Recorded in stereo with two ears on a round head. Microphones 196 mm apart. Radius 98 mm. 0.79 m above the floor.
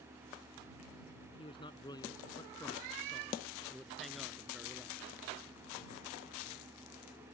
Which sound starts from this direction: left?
A man speaking, at 1.4 s.